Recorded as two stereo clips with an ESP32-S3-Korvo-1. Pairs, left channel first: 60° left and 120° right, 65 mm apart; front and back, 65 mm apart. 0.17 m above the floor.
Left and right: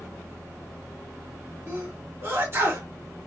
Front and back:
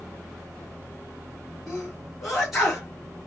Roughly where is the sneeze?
Right.